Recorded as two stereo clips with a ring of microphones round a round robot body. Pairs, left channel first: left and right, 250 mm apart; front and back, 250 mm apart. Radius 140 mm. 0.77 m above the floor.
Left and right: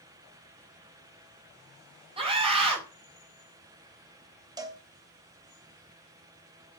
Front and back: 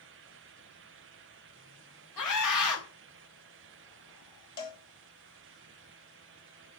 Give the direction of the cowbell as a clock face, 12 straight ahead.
12 o'clock.